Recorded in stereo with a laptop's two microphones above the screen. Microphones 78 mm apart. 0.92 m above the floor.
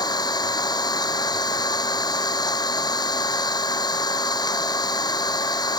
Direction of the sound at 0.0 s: 65° left (ahead or behind).